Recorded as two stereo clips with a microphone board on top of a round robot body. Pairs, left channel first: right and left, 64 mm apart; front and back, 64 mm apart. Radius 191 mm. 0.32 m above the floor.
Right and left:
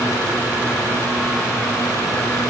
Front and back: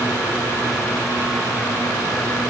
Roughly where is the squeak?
No squeak in this recording.